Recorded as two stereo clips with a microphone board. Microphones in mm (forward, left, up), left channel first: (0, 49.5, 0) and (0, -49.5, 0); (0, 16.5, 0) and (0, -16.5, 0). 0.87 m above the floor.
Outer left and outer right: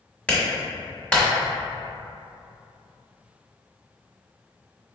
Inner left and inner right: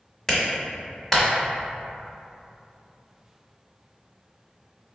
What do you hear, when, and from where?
0.3 s a clap: 10° left (ahead or behind), 1.2 m